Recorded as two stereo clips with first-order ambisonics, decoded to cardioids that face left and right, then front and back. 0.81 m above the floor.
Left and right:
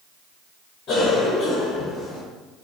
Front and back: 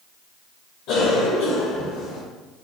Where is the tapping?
No tapping in this recording.